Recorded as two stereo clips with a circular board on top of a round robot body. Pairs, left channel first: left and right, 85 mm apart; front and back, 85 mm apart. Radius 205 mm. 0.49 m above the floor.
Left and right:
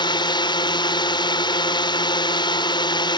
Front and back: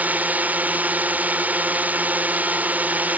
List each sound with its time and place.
0.0 s a drone: 110° left